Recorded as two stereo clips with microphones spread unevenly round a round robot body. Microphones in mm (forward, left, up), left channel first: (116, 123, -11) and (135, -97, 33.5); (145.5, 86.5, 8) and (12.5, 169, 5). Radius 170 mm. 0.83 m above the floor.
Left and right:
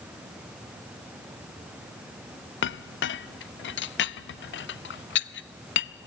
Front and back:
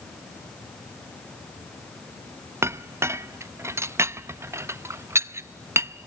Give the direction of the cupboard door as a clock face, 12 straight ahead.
No cupboard door in this recording.